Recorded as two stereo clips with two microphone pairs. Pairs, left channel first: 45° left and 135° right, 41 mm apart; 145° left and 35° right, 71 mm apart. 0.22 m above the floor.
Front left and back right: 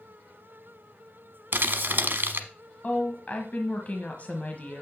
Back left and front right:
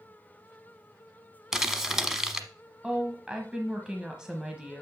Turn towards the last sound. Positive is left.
turn(degrees=35)